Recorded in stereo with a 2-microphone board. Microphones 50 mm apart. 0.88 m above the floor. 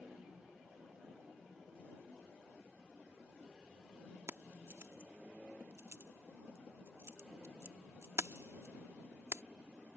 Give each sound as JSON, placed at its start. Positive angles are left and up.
{"t": 4.3, "sound": "keys jangling", "side_deg": -60}